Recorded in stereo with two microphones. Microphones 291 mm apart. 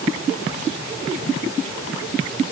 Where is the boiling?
No boiling in this recording.